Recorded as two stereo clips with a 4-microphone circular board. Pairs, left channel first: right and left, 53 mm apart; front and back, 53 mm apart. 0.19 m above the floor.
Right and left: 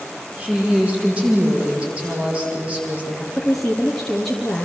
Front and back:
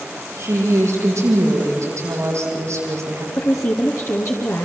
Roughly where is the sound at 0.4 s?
Behind left.